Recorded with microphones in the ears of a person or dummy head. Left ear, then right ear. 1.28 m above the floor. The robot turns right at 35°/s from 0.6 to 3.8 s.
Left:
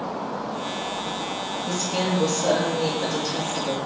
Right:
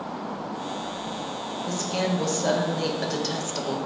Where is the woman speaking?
155° right, 0.6 m; by 3.8 s 80° right, 0.6 m.